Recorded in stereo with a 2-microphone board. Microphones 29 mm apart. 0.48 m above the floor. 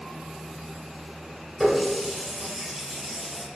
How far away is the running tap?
About 1.2 m.